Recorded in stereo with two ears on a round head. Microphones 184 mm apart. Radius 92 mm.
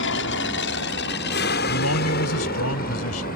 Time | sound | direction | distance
0.0 | an aircraft | 60° left (ahead or behind) | ?
1.7 | a man speaking | 85° left | ?